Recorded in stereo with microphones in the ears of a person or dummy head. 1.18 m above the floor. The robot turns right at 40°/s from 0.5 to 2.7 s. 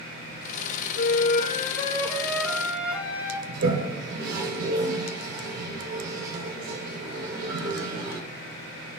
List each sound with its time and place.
1.0 s a flute: 120° left, 2.0 m; by 3.4 s 170° right, 2.0 m
3.5 s a toilet flushing: 65° right (ahead or behind), 4.5 m